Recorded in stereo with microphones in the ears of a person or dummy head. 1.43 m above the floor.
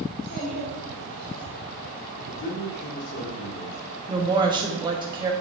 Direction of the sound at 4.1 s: 20° right (ahead or behind).